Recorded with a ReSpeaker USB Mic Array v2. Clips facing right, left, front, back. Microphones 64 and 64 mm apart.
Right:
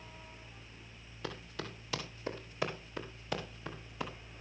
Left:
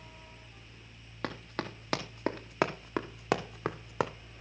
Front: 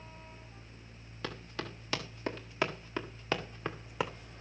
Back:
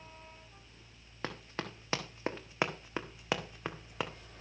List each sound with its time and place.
1.2 s running footsteps: 125° left, 2.5 m; by 4.1 s 85° left, 1.4 m